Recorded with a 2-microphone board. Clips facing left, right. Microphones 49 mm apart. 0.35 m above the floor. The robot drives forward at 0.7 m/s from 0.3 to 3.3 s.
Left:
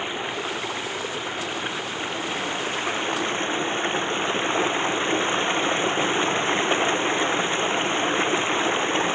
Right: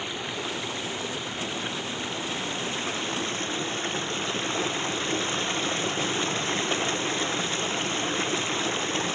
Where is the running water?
25° left (ahead or behind); by 9.2 s 30° left (ahead or behind).